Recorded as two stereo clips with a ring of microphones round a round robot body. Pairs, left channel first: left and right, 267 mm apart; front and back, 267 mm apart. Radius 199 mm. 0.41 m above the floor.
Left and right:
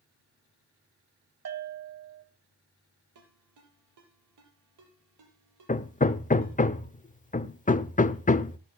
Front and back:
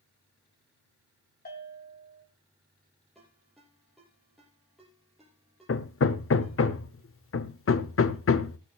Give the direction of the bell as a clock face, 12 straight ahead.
2 o'clock.